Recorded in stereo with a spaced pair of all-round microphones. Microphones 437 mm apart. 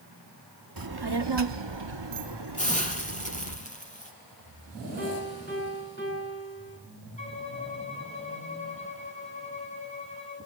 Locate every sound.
0.8 s a child speaking: 50° right (ahead or behind), 1.1 m; by 3.6 s 45° right (ahead or behind), 1.8 m
2.6 s a hiss: 15° left (ahead or behind), 5 m
5.0 s a piano: 25° left (ahead or behind), 9.5 m
7.2 s a violin: 80° left, 8 m